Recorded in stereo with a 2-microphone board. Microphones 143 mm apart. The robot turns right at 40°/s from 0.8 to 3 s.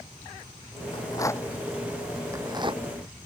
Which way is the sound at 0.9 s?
35° left (ahead or behind).